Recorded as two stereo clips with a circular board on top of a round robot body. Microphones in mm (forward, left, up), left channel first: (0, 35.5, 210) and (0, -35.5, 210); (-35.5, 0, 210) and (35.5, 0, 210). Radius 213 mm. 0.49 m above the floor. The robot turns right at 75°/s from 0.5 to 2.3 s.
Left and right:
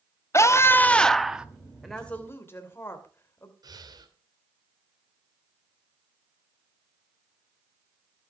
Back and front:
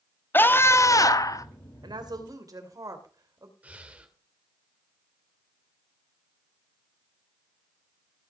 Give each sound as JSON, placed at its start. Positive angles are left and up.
{"t": 0.3, "sound": "a scream", "azimuth_deg": 130, "distance_m": 1.6}
{"t": 1.8, "sound": "a woman speaking", "azimuth_deg": 0, "distance_m": 2.5}
{"t": 3.6, "sound": "breathing", "azimuth_deg": -70, "distance_m": 2.5}